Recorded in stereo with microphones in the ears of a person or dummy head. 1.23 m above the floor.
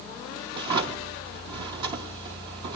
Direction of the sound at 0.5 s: 20° right (ahead or behind).